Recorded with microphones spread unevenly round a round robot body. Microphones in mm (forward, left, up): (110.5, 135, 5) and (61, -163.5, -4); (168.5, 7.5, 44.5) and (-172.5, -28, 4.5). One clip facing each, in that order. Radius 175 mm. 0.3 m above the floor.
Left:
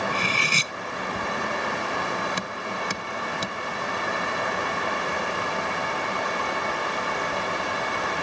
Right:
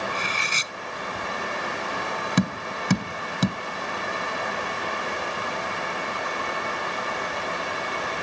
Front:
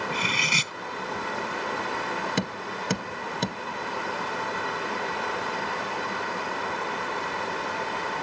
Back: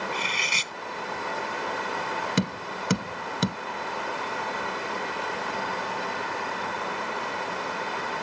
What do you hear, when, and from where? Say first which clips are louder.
0.1 s cutlery clinking: left 4 dB, front 3 dB; 30° left
2.4 s tapping: right 7 dB, back 2 dB; 100° right